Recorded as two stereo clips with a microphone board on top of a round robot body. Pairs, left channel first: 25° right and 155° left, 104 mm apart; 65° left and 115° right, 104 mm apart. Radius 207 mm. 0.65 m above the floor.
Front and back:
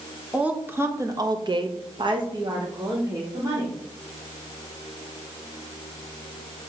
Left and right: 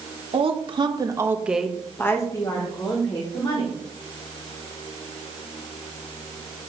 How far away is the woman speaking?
About 1.4 m.